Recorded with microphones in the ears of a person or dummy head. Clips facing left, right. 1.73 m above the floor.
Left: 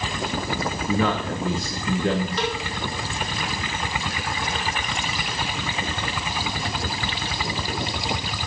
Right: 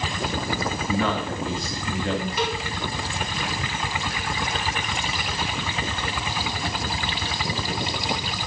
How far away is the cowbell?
About 2.5 m.